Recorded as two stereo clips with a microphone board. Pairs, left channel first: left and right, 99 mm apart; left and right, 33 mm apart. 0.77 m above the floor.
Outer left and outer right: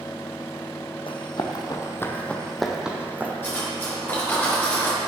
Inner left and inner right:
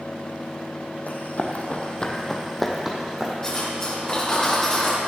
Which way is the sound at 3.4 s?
20° left (ahead or behind).